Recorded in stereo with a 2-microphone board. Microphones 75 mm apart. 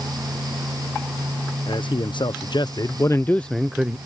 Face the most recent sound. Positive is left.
turn(degrees=-15)  # may be behind; listen again after turning